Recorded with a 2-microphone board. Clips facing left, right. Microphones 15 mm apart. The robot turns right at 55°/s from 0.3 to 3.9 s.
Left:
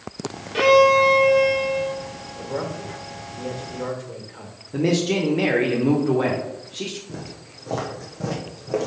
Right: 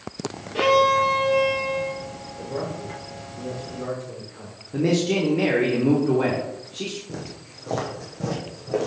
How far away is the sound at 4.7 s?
About 0.8 m.